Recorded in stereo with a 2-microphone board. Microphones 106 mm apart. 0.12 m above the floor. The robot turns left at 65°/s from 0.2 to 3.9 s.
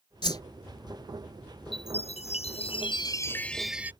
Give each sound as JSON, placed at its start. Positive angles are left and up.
{"t": 0.2, "sound": "a whoosh", "side_deg": 45}
{"t": 1.7, "sound": "a chime", "azimuth_deg": 125}